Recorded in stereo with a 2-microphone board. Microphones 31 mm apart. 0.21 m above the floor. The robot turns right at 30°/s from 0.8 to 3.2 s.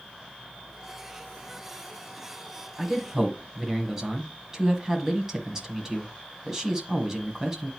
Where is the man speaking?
10° right (ahead or behind), 1.3 m; by 7.7 s 15° right (ahead or behind), 1.3 m.